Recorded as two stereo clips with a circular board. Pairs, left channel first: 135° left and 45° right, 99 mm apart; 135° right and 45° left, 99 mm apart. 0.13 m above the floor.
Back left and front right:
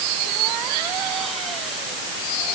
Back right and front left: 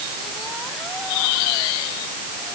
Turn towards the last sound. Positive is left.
No sound to turn to.